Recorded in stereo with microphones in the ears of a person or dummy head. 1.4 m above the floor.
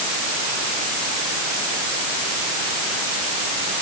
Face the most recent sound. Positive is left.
No sound to turn to.